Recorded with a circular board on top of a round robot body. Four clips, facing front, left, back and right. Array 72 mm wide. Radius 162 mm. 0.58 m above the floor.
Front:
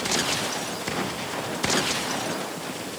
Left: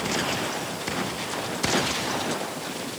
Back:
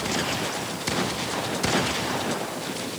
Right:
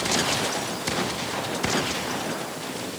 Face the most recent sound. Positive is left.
No sound to turn to.